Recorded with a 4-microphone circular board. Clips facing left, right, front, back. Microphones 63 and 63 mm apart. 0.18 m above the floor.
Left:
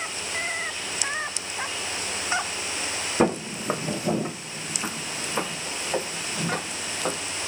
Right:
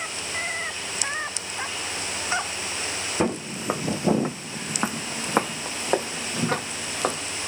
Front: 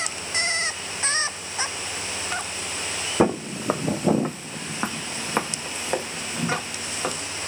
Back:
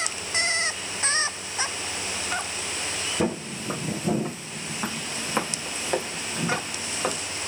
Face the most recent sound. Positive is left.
turn(degrees=-90)